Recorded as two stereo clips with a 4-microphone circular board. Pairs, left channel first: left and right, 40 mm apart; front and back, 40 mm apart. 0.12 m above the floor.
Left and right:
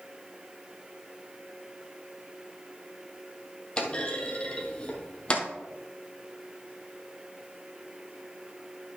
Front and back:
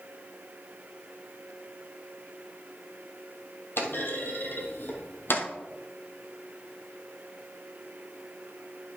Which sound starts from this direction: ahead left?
A clunk, at 3.8 s.